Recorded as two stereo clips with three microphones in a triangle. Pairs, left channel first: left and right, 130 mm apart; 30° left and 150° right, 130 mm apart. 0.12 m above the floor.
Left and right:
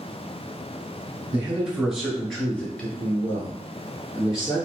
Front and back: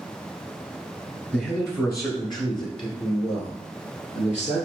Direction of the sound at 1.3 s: 35° right.